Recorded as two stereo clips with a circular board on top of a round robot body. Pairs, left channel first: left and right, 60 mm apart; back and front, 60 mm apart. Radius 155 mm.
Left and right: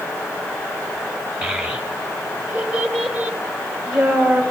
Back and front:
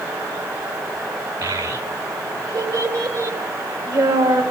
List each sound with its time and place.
1.4 s a child speaking: 10° right, 2 m